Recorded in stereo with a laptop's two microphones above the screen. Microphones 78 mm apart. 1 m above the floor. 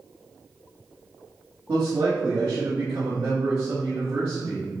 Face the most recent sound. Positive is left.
turn(degrees=-65)  # may be behind; listen again after turning